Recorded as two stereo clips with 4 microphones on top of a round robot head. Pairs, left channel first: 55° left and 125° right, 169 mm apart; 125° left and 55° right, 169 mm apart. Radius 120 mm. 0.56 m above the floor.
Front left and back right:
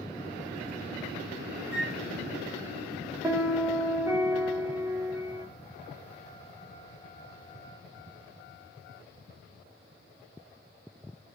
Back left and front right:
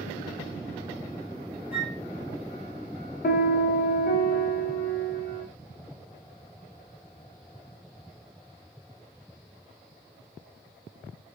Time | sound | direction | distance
1.7 | a flute | 140° right | 0.5 m
3.2 | a piano | 160° left | 0.6 m